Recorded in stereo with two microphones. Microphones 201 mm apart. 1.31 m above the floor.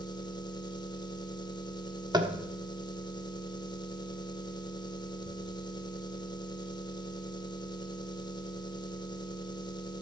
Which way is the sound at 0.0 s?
20° left (ahead or behind).